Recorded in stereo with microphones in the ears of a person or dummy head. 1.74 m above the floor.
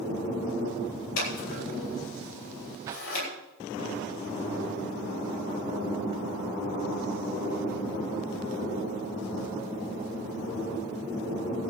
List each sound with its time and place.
1.2 s scissors: 80° left, 10 m
2.9 s a whoosh: 20° right (ahead or behind), 0.8 m